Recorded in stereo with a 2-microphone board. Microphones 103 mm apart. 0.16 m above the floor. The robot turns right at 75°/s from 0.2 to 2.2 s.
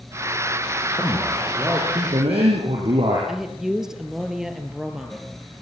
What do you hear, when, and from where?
0.9 s a man speaking: 155° left, 7 m; by 3.2 s 110° right, 7 m
3.3 s a woman speaking: 5° right (ahead or behind), 3 m